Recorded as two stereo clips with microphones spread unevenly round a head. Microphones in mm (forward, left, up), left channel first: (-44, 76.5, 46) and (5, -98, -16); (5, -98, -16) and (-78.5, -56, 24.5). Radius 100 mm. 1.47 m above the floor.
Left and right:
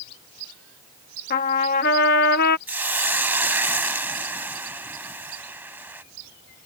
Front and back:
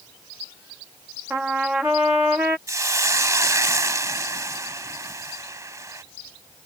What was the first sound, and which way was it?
A trumpet, 90° left.